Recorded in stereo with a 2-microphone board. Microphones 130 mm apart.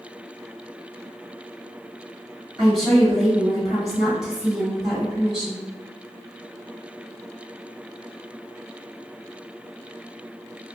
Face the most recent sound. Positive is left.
turn(degrees=-5)  # may be behind; listen again after turning